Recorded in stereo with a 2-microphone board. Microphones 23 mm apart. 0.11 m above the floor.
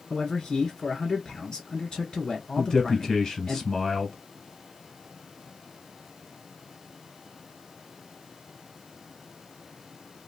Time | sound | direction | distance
0.1 | a man speaking | 30° left (ahead or behind) | 1.3 m
2.6 | a man speaking | 20° left (ahead or behind) | 1.2 m